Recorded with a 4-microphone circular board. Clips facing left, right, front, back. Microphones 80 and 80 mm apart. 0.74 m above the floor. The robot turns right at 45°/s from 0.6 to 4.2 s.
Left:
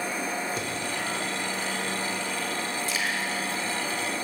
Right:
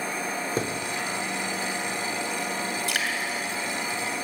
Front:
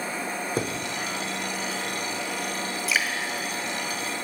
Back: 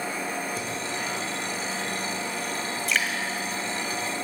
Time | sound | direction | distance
0.6 | a thud | 40° right | 0.8 m
2.9 | dripping | 85° right | 1.7 m